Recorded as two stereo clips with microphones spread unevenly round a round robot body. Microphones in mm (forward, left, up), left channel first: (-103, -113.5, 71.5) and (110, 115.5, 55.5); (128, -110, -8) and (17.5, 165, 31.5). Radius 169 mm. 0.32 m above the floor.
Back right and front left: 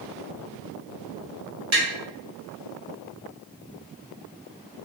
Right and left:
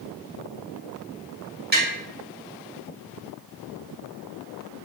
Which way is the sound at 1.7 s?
60° left.